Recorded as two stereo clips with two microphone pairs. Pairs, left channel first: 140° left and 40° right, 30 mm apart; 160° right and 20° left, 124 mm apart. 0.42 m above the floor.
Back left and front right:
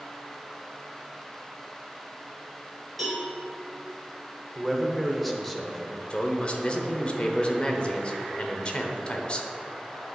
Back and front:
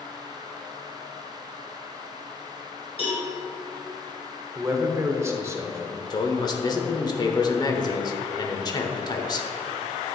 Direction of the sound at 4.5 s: 60° left.